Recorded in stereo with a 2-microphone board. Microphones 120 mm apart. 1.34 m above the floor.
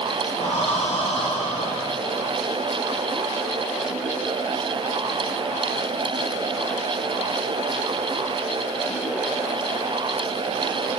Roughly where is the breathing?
Left.